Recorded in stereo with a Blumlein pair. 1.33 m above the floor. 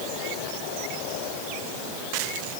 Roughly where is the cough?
I don't hear a cough.